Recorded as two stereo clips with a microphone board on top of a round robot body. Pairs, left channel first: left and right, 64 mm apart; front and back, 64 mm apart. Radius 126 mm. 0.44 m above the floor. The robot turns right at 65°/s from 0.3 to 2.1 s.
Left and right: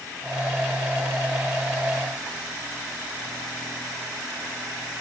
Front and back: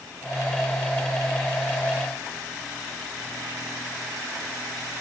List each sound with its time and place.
Only background noise.